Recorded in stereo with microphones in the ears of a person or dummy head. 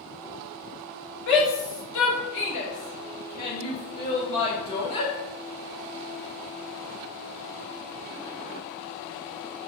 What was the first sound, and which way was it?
A shout, 75° left (ahead or behind).